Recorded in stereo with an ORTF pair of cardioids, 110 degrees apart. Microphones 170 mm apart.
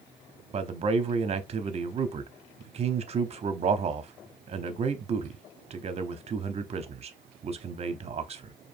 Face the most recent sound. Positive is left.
turn(degrees=-40)